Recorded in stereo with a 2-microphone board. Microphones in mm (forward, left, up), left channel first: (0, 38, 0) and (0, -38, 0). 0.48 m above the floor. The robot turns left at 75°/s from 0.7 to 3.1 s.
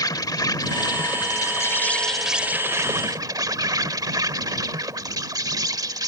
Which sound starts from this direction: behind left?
An insect, at 0.0 s.